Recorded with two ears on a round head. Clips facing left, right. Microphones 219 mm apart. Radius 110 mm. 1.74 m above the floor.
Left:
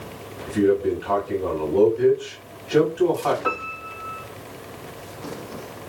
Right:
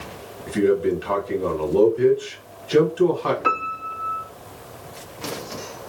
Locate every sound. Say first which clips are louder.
0.5 s a man speaking: even; 35° right (ahead or behind), 1.8 m
3.4 s a piano: even; 35° right (ahead or behind), 0.7 m